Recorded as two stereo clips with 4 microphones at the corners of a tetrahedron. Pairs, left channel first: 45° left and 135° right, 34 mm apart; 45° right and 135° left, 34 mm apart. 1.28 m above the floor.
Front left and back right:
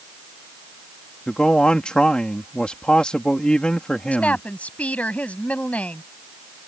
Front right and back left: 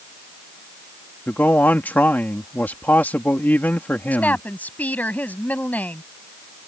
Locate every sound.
1.3 s a man speaking: 15° right
4.1 s a woman speaking: 5° right